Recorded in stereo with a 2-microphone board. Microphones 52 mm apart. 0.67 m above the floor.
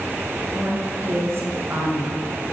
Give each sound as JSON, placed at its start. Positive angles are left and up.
{"t": 0.5, "sound": "a woman speaking", "side_deg": -60, "distance_m": 6.5}